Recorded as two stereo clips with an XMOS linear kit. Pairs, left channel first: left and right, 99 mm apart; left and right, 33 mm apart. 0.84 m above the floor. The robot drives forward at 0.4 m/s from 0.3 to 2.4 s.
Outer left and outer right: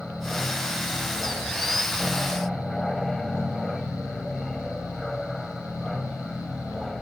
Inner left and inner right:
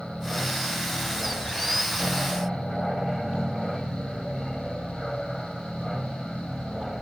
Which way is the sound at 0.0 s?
5° left (ahead or behind).